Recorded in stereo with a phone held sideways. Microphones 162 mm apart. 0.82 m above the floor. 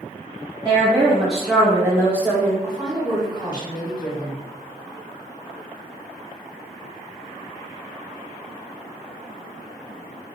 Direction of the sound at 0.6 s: 25° right (ahead or behind).